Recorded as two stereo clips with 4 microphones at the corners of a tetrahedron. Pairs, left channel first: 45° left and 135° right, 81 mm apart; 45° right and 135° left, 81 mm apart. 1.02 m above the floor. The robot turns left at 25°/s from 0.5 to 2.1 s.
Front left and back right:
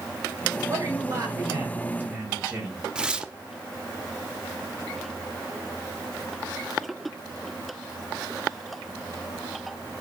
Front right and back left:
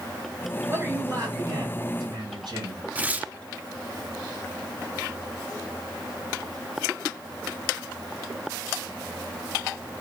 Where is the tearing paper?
165° left, 0.5 m.